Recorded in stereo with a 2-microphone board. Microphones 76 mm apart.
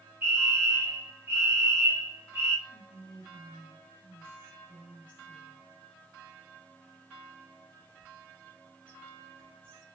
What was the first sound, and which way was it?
A fire alarm, 25° right (ahead or behind).